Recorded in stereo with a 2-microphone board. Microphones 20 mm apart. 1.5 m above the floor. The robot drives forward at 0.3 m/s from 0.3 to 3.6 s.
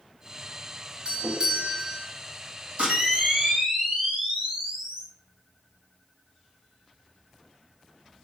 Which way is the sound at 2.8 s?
50° right (ahead or behind).